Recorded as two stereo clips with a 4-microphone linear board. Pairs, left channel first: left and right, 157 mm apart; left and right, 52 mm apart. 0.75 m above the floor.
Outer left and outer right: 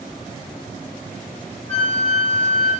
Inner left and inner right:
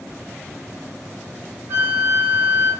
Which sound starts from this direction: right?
A flute, at 1.7 s.